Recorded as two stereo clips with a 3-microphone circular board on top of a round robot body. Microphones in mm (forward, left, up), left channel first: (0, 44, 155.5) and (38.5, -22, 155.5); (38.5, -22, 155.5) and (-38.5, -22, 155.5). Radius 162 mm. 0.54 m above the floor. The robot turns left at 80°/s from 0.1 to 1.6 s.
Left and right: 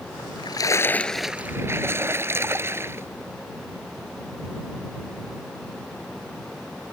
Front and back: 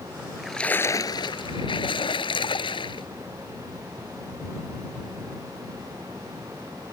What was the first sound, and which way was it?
A splash, 110° left.